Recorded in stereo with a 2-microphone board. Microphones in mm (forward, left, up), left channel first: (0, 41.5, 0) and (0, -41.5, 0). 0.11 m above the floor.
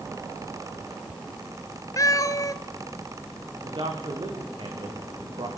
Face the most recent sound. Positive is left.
turn(degrees=-70)  # may be behind; listen again after turning